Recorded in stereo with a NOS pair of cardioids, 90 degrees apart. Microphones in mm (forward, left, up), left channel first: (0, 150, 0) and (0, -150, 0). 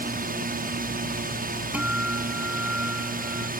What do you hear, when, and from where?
0.0 s a drone: 30° right
1.7 s a guitar: 5° right